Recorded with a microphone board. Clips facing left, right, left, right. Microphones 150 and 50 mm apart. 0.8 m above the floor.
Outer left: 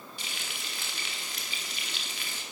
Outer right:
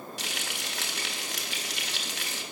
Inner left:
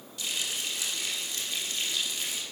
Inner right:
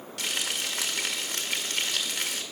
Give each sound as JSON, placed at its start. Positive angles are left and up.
{"t": 0.2, "sound": "frying", "side_deg": -85, "distance_m": 1.7}